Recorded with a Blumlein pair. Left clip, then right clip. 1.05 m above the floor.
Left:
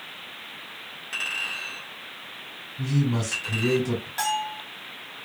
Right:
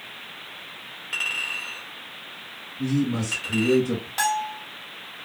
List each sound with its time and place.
1.1 s a clink: straight ahead, 2.5 m
2.8 s a man speaking: 30° left, 3 m
4.2 s a bell: 10° right, 1.9 m